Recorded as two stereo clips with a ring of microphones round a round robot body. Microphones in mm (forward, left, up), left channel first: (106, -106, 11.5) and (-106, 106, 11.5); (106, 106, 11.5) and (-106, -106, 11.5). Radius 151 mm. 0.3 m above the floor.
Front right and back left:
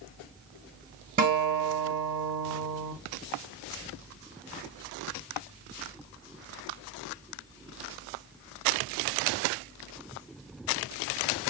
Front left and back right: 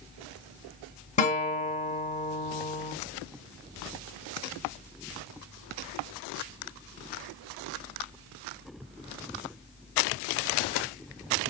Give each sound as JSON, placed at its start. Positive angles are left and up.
{"t": 1.2, "sound": "a guitar", "azimuth_deg": 95, "distance_m": 1.0}